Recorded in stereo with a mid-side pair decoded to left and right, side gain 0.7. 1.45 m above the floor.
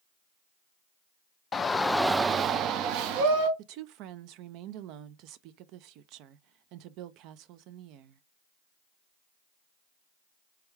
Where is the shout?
25° left, 0.7 m; by 3.5 s 75° right, 1.1 m.